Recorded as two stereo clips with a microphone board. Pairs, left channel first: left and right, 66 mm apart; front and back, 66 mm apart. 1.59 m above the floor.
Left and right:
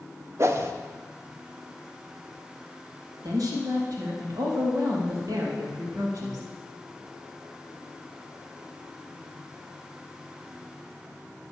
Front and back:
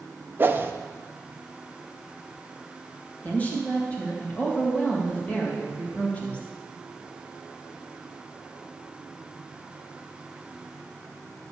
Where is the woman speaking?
65° right, 2.5 m.